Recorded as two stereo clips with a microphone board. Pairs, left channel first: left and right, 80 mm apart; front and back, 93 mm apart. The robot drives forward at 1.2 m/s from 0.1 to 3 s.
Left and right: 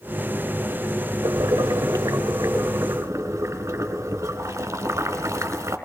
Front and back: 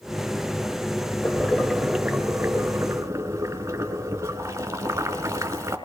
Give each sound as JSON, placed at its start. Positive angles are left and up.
{"t": 1.2, "sound": "boiling", "azimuth_deg": -70, "distance_m": 2.0}